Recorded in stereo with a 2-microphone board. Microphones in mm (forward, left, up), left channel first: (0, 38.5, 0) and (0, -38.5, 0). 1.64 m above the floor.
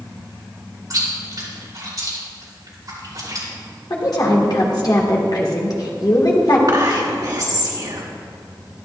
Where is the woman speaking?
55° left (ahead or behind), 1.8 m.